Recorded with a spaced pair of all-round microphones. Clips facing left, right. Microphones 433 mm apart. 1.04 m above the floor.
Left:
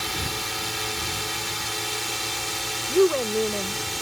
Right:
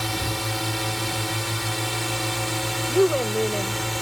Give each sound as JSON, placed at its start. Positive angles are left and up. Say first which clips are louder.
{"t": 0.0, "sound": "a drone", "louder": "right 4 dB", "side_deg": -65}
{"t": 2.9, "sound": "a woman speaking", "louder": "left 1 dB", "side_deg": 5}